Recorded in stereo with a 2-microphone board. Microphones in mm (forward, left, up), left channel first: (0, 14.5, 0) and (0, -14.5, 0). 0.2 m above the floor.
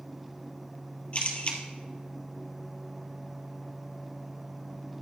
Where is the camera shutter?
40° left (ahead or behind), 2 m.